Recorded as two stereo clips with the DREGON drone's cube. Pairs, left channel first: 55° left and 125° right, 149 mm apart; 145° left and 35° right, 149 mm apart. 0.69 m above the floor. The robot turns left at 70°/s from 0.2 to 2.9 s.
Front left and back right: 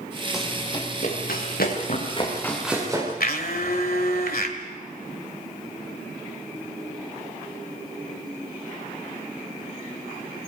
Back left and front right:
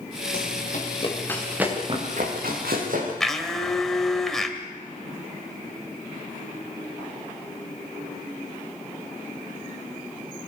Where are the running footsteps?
150° left, 5 m; by 3.1 s 55° right, 7.5 m.